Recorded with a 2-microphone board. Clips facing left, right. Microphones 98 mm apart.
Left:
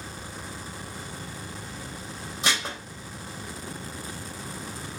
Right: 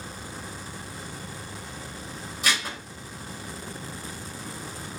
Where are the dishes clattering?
20° left (ahead or behind), 0.6 m.